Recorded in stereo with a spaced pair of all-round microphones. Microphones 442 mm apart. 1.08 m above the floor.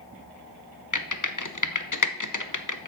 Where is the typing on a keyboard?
45° left (ahead or behind), 0.8 m.